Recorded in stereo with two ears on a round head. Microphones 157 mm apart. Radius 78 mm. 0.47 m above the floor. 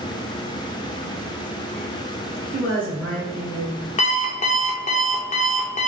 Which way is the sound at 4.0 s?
40° left (ahead or behind).